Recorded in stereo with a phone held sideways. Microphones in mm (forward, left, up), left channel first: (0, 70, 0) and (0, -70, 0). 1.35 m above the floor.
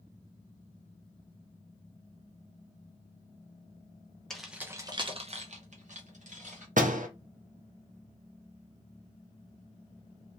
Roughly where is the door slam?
Right.